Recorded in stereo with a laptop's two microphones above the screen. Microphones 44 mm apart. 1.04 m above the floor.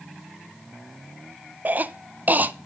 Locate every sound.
1.6 s a cough: 40° right (ahead or behind), 0.7 m